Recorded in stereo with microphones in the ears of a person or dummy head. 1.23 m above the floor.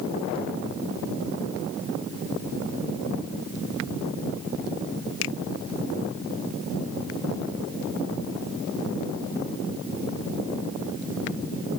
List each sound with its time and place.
5.2 s a finger snap: 75° left (ahead or behind)